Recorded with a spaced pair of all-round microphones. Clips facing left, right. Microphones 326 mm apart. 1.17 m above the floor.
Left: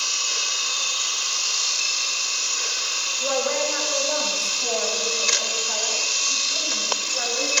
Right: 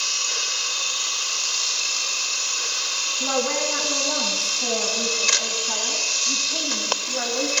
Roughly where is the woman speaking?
Right.